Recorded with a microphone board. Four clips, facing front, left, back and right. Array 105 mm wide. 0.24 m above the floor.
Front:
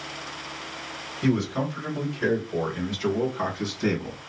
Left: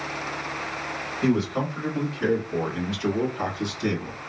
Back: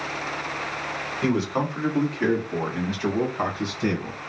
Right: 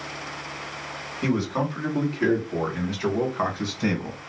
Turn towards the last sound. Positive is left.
turn(degrees=-100)